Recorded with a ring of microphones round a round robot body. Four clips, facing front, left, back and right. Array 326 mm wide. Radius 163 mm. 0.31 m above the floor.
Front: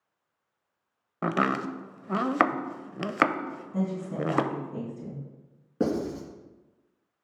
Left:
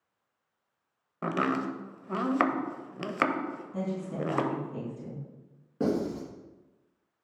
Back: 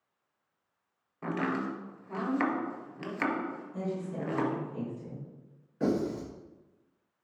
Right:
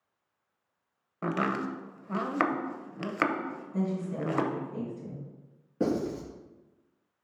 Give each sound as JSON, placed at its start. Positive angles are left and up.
{"t": 1.2, "sound": "chopping", "azimuth_deg": 5, "distance_m": 0.6}
{"t": 3.7, "sound": "a woman speaking", "azimuth_deg": 20, "distance_m": 3.0}
{"t": 5.8, "sound": "writing", "azimuth_deg": 0, "distance_m": 3.5}